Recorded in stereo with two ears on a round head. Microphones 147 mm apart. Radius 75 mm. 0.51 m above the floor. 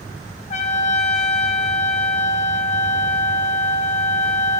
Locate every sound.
0.5 s a trumpet: 45° left (ahead or behind), 0.5 m